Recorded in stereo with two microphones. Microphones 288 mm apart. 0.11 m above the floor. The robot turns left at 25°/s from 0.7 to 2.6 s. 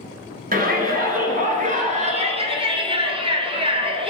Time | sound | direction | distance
0.5 | a shout | 95° right | 1.2 m